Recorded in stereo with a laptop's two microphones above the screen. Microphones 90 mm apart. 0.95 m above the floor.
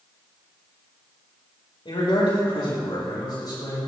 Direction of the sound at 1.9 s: 75° left (ahead or behind).